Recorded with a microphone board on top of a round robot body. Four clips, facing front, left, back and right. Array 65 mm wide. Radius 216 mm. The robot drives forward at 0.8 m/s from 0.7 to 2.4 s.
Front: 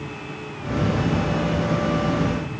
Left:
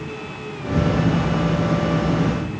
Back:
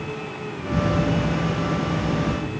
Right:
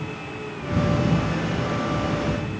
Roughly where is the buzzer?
No buzzer in this recording.